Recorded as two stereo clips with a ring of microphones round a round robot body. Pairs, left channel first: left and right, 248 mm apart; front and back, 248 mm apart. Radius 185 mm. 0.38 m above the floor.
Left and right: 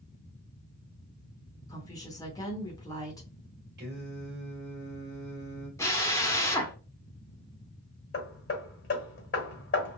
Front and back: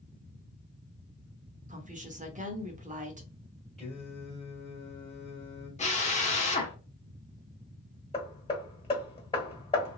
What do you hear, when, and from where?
1.7 s a woman speaking: 155° left, 0.9 m
3.8 s singing: 85° right, 1.6 m
5.8 s a drill: 20° left, 1.1 m
8.1 s hammering: 70° left, 1.3 m